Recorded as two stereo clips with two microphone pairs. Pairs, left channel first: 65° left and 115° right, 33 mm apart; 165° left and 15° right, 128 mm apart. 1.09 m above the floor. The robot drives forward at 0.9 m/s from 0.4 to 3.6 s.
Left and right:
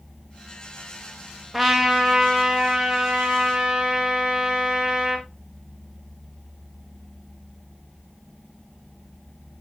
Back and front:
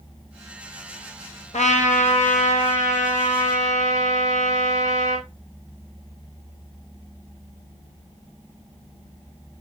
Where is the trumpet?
160° left, 1.5 m; by 5.3 s 170° left, 3.5 m.